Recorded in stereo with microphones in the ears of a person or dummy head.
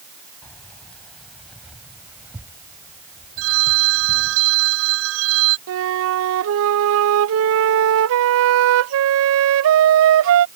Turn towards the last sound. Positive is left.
turn(degrees=-80)